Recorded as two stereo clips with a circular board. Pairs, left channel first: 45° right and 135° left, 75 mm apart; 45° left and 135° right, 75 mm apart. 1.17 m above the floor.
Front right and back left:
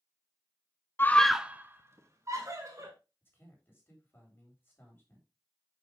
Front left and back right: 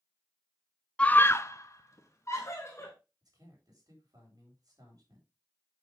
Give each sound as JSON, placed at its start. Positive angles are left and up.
{"t": 1.0, "sound": "a scream", "azimuth_deg": -20, "distance_m": 0.6}
{"t": 3.2, "sound": "a man speaking", "azimuth_deg": -105, "distance_m": 3.5}